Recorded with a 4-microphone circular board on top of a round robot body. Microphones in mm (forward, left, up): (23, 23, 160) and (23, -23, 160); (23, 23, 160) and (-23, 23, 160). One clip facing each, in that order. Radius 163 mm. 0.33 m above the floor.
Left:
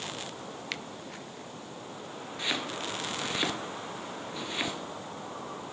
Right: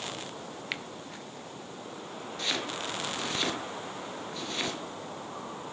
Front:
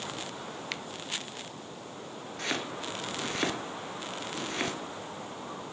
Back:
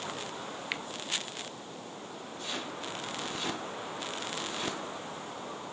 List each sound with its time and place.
0.7 s a finger snap: 140° right, 1.2 m
2.4 s chopping: 15° left, 4.5 m